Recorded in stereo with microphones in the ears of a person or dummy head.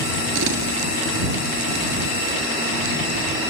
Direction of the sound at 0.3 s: 80° right.